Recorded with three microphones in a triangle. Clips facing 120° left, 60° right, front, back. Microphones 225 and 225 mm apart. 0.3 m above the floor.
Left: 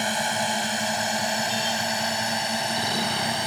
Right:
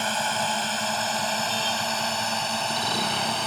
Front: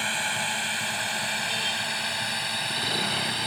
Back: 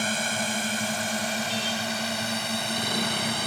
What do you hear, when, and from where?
0.0 s a drone: 170° right; by 3.5 s 165° right